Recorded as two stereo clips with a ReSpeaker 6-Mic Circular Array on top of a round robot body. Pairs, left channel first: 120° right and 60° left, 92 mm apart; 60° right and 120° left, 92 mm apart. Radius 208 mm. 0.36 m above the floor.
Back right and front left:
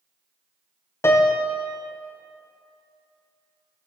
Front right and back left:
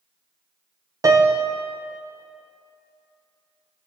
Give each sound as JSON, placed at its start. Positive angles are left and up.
{"t": 1.0, "sound": "a piano", "azimuth_deg": 175, "distance_m": 0.7}